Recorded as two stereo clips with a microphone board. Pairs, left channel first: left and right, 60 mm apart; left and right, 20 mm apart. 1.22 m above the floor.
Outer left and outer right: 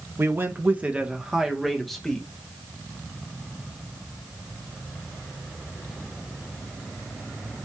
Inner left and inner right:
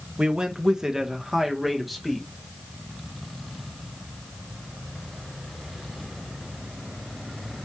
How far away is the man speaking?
About 1.1 m.